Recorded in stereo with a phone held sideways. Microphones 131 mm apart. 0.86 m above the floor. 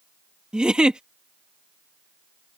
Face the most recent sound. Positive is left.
turn(degrees=-5)  # may be behind; listen again after turning